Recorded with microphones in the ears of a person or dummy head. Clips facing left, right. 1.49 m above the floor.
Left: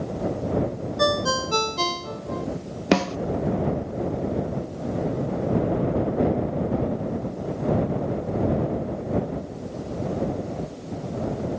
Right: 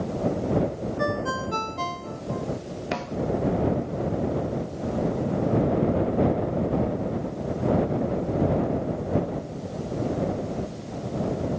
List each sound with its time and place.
1.0 s a ringtone: 55° left (ahead or behind)
2.9 s a snare drum: 70° left (ahead or behind)